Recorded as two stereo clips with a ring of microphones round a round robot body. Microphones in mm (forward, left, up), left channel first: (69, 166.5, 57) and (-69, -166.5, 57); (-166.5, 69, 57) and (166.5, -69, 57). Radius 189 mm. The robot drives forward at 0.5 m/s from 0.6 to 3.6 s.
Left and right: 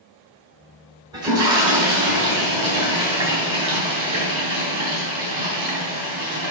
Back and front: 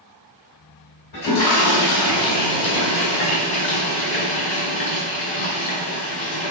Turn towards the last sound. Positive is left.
turn(degrees=170)